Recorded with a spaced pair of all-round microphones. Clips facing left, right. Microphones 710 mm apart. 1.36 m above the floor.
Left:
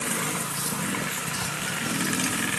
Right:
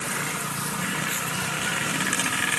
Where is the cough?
No cough in this recording.